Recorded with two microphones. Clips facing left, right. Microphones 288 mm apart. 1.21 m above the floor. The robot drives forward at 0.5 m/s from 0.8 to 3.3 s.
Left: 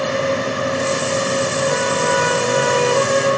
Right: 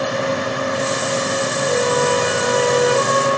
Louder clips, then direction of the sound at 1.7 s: Right 2 dB; 80° left.